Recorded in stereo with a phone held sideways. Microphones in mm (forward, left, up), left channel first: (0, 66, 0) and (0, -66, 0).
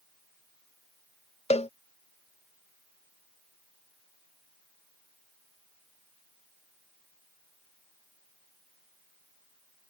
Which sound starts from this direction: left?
A cowbell, at 1.5 s.